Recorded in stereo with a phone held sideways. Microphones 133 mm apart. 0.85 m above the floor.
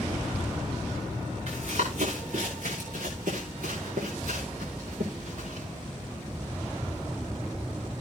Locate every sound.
1.5 s running footsteps: 55° right (ahead or behind), 5.5 m; by 5.7 s 75° right (ahead or behind), 8.5 m